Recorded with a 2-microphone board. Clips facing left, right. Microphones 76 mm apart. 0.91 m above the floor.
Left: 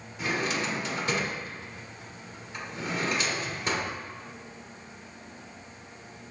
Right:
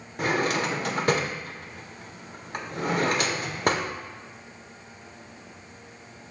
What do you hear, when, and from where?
0.2 s a drawer: 55° right (ahead or behind), 0.8 m